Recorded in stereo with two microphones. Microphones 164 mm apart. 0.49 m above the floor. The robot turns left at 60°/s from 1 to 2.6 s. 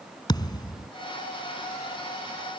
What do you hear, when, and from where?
0.3 s a thud: 25° left (ahead or behind)